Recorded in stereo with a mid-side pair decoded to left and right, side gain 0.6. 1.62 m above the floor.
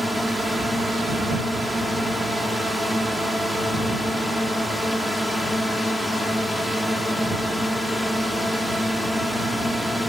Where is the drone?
5° left.